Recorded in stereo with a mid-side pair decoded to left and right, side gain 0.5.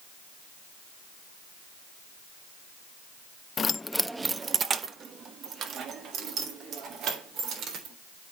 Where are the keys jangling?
40° left, 0.5 m; by 8.0 s 65° right, 3.5 m.